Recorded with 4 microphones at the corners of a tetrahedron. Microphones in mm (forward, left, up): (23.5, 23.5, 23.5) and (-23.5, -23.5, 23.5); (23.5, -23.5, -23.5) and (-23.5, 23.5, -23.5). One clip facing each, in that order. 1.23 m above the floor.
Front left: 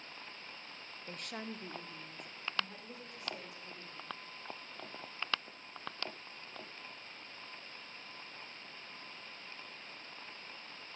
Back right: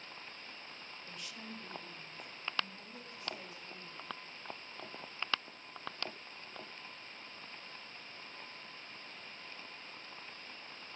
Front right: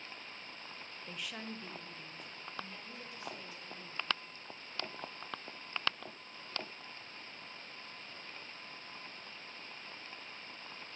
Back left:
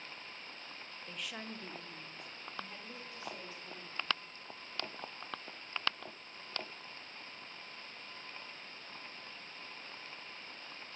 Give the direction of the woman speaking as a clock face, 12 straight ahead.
11 o'clock.